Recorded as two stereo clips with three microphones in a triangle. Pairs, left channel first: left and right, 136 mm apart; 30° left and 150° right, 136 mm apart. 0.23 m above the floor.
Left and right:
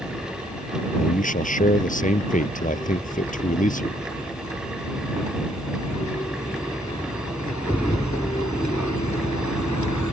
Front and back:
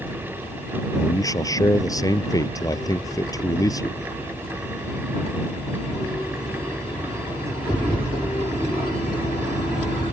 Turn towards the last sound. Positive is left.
turn(degrees=90)